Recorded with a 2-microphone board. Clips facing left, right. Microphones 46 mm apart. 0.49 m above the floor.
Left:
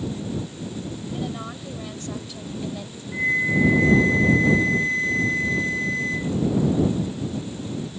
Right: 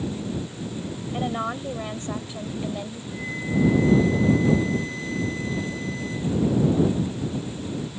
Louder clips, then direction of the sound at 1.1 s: Right 7 dB; 35° right (ahead or behind).